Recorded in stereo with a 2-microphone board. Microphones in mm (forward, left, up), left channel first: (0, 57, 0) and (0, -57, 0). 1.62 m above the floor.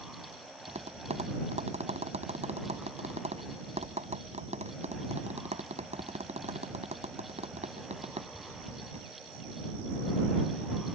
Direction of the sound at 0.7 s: 80° right.